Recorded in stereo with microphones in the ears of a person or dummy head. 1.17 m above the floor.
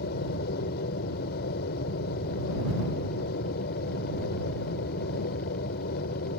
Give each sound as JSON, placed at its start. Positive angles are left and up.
{"t": 0.0, "sound": "an aircraft", "side_deg": 55}